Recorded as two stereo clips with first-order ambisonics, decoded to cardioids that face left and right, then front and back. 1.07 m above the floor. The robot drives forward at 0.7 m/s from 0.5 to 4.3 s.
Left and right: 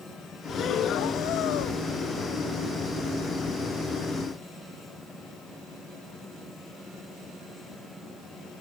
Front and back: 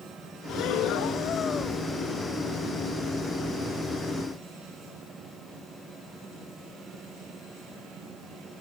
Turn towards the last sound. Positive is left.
turn(degrees=160)